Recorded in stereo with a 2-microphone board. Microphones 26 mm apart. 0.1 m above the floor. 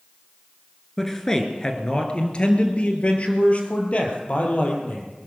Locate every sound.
1.0 s a man speaking: 15° left (ahead or behind), 1.8 m; by 5.1 s 55° left (ahead or behind), 4 m